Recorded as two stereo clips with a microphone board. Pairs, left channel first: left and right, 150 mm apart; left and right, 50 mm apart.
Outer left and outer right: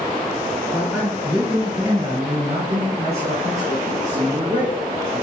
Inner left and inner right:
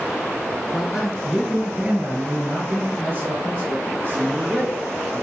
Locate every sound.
0.7 s a man speaking: centre (ahead or behind), 1.9 m; by 5.2 s 45° right (ahead or behind), 3.5 m